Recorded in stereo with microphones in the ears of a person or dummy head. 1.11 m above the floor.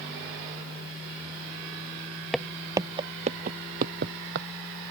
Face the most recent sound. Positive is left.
turn(degrees=-60)  # may be behind; listen again after turning